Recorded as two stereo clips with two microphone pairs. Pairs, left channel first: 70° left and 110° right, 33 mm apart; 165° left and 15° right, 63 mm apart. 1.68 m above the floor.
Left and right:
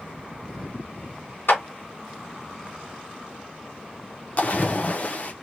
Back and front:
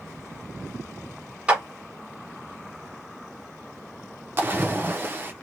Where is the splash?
30° left, 0.9 m.